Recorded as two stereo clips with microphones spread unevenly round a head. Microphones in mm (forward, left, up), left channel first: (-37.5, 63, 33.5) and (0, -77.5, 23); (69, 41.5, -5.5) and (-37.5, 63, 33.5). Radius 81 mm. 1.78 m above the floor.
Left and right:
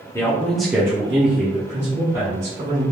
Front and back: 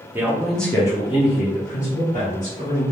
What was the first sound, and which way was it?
A man speaking, 160° left.